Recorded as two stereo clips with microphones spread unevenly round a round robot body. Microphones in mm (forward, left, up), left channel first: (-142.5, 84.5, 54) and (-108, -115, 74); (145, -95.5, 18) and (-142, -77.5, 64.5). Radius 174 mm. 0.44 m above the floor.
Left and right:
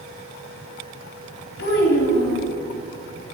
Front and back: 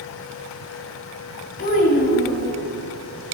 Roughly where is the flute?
I don't hear a flute.